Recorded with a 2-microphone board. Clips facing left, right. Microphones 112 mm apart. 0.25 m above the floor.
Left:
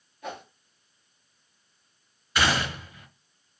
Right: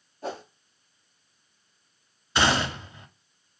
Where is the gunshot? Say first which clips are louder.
Right 2 dB; 25° right (ahead or behind), 0.7 m.